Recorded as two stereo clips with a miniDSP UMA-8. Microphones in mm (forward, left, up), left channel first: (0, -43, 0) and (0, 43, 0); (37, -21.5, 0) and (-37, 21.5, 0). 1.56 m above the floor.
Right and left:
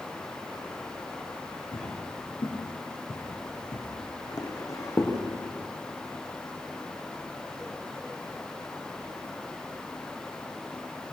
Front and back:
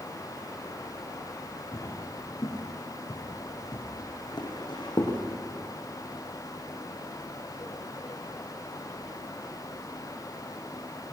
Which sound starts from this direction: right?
Footsteps, at 1.7 s.